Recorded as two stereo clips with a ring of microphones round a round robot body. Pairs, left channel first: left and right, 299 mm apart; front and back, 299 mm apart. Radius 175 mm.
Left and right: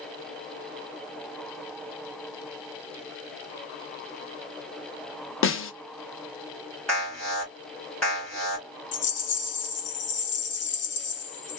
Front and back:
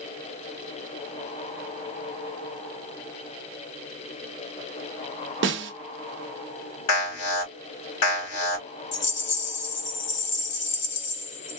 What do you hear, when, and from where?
5.4 s a snare drum: 130° left, 1.0 m
6.9 s an alarm: 5° left, 3 m
8.9 s a rattle: 45° left, 1.3 m